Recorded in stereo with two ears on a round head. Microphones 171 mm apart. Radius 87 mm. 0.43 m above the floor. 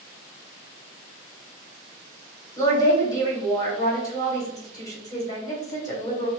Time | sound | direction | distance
2.6 | a woman speaking | 20° left (ahead or behind) | 2.5 m